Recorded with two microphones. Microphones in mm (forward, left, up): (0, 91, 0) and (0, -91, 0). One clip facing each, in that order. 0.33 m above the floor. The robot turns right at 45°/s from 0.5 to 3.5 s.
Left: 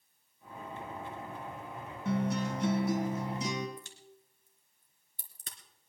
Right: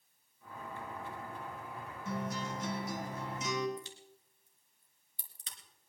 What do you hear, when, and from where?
2.0 s a guitar: 80° left, 2.5 m; by 3.7 s 145° left, 2.5 m
3.8 s a crack: 50° left (ahead or behind), 3 m